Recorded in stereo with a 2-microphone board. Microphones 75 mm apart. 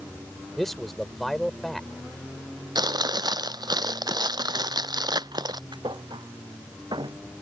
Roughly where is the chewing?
Right.